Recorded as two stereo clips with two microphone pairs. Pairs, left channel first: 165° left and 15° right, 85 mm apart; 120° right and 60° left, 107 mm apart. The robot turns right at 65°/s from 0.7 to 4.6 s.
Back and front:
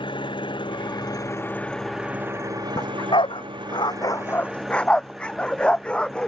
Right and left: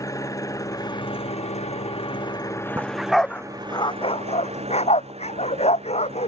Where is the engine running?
Straight behind; by 6.3 s 75° left.